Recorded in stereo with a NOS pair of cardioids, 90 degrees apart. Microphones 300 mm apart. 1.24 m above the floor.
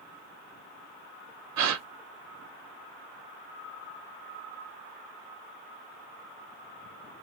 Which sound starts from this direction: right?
A gasp, at 1.6 s.